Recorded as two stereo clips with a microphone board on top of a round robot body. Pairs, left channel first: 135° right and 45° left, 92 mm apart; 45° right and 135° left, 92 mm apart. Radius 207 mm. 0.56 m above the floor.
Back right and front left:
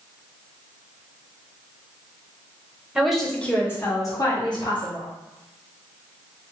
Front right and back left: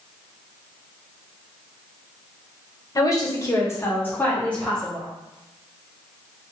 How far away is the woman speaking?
About 1.2 m.